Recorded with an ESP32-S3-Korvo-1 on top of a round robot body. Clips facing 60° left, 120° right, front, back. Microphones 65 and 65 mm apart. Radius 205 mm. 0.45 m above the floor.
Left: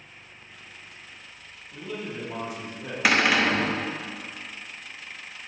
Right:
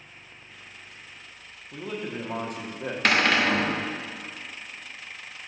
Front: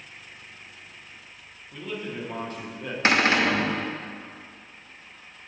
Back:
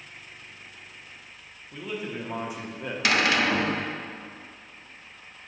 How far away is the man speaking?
About 1.2 m.